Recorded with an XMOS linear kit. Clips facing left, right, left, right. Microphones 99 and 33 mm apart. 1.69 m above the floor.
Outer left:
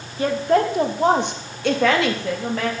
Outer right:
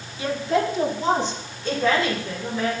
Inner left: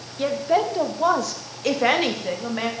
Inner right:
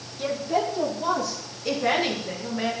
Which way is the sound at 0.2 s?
40° left (ahead or behind).